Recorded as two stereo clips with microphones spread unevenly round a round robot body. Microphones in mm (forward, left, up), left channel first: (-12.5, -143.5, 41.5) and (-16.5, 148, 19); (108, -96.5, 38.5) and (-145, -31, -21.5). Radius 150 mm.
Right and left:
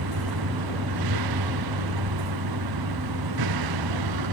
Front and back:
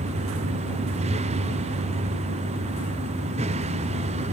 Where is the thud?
I don't hear a thud.